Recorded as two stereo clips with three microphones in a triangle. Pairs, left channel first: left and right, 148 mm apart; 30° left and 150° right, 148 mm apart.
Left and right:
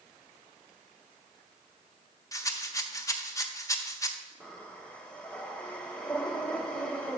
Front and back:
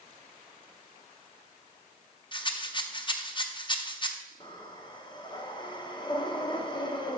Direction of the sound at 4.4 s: 15° left.